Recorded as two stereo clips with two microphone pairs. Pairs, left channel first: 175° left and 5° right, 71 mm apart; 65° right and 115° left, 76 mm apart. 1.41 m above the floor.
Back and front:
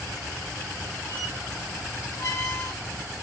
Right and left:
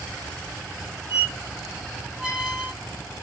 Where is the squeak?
Straight behind, 1.2 m.